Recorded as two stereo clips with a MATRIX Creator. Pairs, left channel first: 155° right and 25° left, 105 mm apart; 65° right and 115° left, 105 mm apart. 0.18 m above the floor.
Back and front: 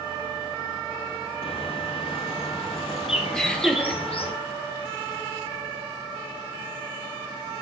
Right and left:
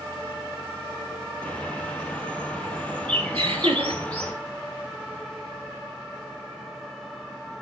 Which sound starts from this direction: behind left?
Laughter, at 3.3 s.